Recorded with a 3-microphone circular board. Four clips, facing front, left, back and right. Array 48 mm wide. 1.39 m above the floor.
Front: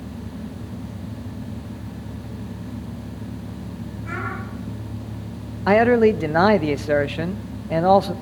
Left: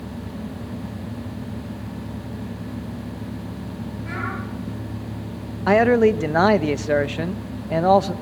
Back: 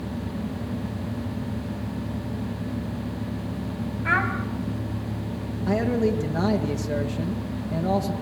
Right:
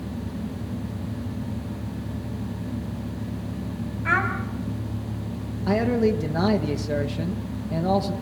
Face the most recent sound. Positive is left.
turn(degrees=40)